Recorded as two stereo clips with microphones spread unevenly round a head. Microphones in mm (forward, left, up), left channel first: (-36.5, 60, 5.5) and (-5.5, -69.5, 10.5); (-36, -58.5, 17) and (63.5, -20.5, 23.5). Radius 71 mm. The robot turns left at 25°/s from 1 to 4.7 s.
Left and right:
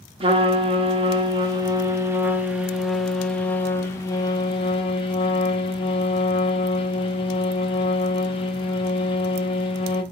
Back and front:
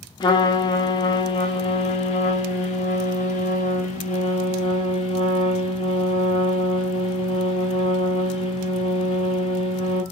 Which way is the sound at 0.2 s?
115° right.